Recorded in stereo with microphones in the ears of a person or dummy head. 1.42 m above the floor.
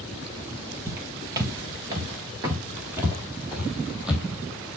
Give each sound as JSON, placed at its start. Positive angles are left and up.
{"t": 0.9, "sound": "footsteps", "side_deg": -20, "distance_m": 2.0}